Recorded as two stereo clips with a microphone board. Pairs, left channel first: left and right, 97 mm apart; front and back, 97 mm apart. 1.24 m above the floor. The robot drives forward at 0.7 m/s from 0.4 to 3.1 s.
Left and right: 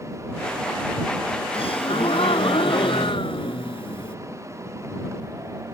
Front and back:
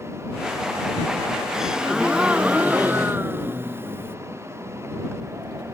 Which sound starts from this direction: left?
A gasp, at 1.5 s.